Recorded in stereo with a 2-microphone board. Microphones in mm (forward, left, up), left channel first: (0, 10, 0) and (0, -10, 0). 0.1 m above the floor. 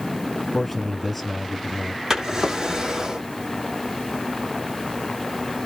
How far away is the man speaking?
About 1.9 m.